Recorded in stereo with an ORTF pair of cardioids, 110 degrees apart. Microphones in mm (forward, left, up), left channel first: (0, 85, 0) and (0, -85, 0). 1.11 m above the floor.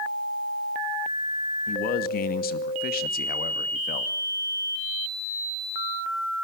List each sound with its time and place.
1.7 s a man speaking: 65° left, 2.5 m